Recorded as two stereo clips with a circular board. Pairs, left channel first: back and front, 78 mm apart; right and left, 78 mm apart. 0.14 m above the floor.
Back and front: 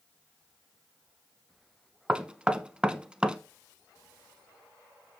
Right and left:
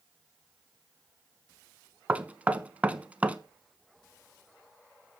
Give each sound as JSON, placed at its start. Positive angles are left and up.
{"t": 2.1, "sound": "knocking", "azimuth_deg": 55, "distance_m": 0.7}